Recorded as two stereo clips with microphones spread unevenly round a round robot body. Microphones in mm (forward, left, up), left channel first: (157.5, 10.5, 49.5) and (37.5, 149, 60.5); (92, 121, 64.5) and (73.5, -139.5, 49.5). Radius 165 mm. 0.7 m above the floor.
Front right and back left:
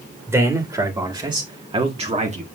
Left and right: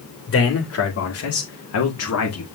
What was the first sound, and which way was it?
A man speaking, 55° left.